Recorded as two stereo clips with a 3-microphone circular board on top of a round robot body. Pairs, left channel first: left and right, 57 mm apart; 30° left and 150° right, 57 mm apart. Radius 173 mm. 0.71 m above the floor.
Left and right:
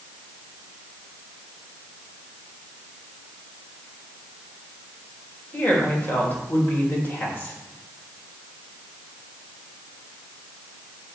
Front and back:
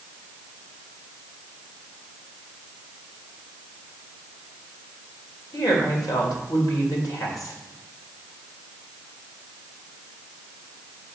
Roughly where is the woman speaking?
Ahead left.